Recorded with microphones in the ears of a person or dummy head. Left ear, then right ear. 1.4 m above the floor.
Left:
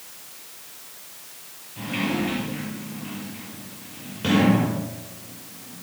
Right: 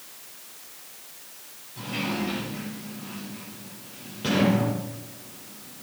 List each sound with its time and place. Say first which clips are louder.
1.8 s a sliding door: left 3 dB; 20° left (ahead or behind), 5.5 m